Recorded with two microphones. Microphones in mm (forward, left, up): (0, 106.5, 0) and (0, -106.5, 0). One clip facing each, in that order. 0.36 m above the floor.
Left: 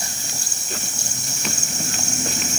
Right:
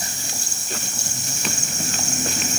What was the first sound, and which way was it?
Only background noise.